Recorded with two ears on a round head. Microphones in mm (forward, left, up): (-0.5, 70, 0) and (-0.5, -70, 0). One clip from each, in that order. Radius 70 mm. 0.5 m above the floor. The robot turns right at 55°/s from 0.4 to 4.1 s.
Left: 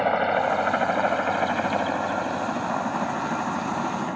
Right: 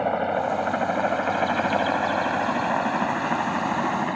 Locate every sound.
0.0 s a helicopter: 40° left (ahead or behind); by 4.2 s 40° right (ahead or behind)